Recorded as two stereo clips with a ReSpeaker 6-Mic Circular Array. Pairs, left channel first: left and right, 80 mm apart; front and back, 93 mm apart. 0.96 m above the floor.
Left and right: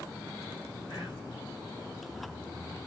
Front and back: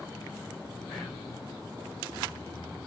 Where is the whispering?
60° left, 1.8 m.